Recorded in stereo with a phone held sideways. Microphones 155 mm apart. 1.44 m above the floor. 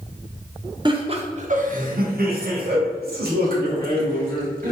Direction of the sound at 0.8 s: 30° right (ahead or behind).